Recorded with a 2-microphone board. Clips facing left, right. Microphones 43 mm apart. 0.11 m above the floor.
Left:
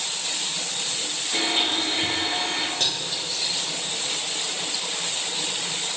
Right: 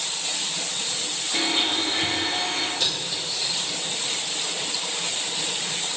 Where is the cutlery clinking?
50° left (ahead or behind), 3 m.